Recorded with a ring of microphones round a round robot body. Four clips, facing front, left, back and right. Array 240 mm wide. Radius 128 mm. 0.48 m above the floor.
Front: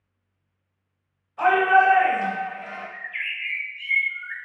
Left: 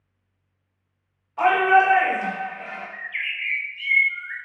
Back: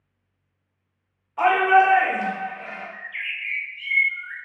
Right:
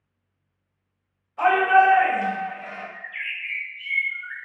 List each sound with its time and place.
1.4 s a shout: 145° left, 1.8 m; by 2.9 s 115° left, 1.7 m
2.9 s a bird: 85° left, 0.9 m